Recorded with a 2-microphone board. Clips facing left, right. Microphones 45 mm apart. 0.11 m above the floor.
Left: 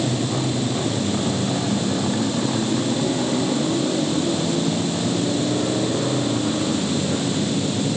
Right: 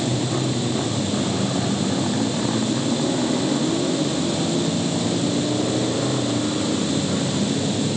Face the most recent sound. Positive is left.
No sound to turn to.